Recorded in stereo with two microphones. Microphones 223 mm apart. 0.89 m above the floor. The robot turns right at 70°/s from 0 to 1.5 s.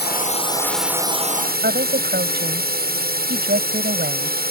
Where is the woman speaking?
50° right (ahead or behind).